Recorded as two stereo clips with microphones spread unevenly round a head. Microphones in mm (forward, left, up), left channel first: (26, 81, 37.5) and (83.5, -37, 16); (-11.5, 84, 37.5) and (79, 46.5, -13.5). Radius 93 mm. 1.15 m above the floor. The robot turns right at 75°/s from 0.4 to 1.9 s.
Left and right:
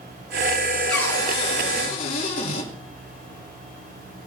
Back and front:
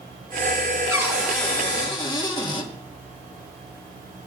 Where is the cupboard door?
30° left, 6 m; by 2.7 s 105° left, 6 m.